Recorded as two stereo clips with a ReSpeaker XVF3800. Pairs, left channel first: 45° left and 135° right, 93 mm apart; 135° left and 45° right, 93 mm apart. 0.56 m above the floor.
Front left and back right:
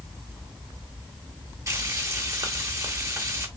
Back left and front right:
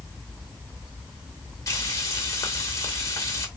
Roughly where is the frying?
Behind.